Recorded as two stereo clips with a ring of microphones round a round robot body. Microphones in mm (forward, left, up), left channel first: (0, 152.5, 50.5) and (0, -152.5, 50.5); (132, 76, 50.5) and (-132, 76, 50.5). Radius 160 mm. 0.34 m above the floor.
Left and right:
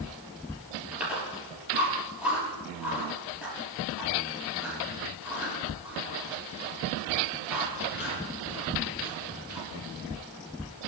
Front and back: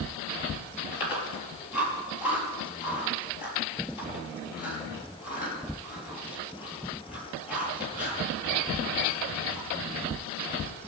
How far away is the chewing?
About 6 m.